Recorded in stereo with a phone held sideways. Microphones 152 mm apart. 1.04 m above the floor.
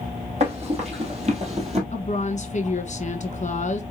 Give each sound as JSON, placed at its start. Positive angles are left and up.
{"t": 0.4, "sound": "running footsteps", "side_deg": -45, "distance_m": 2.0}
{"t": 1.9, "sound": "a woman speaking", "side_deg": 50, "distance_m": 1.0}